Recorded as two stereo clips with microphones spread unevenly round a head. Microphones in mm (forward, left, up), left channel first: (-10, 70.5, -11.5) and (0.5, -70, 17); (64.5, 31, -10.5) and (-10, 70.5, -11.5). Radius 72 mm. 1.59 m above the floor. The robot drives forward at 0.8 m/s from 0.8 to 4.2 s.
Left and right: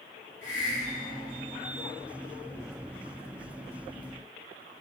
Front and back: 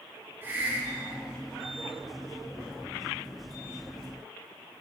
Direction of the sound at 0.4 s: 95° left.